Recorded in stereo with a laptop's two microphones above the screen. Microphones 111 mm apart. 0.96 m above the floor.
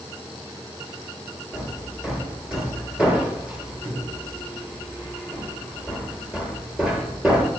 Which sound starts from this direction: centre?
Hammering, at 1.5 s.